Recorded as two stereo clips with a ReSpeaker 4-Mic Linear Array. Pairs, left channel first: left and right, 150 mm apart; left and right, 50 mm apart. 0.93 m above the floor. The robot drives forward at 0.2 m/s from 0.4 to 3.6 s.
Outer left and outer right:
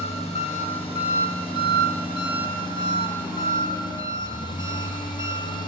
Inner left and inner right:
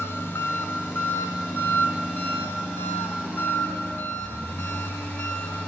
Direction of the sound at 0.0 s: 45° left (ahead or behind).